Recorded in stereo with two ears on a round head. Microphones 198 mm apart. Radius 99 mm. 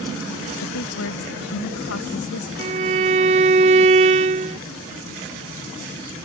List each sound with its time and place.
0.6 s a woman speaking: 70° left (ahead or behind)
2.6 s a violin: 30° right (ahead or behind)